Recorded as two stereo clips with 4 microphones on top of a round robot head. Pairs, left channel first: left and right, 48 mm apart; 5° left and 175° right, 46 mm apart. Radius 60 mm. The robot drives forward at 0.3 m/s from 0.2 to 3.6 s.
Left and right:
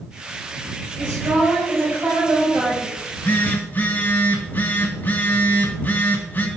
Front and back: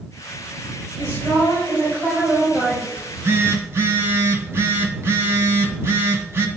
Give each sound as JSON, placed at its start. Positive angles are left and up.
{"t": 1.0, "sound": "a woman speaking", "azimuth_deg": -120, "distance_m": 4.0}
{"t": 3.0, "sound": "a phone buzzing", "azimuth_deg": 150, "distance_m": 0.8}